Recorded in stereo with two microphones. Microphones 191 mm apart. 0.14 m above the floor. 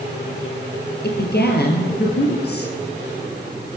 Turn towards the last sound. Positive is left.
turn(degrees=60)  # may be behind; listen again after turning